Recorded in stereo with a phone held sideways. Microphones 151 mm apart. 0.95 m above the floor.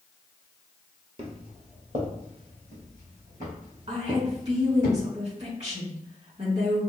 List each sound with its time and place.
1.2 s footsteps: 40° right (ahead or behind), 1.3 m; by 4.9 s 60° right (ahead or behind), 4 m
3.9 s a woman speaking: 45° right (ahead or behind), 1.8 m